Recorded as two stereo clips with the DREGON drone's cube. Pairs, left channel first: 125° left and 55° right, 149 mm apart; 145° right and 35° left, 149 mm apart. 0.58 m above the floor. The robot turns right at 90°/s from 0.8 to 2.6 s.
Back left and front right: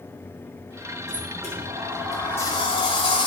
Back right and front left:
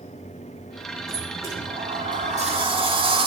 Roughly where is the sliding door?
Ahead right.